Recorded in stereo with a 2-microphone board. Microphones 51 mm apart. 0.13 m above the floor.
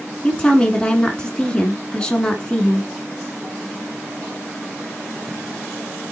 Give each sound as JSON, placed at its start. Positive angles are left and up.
{"t": 0.2, "sound": "a woman speaking", "side_deg": 15, "distance_m": 1.1}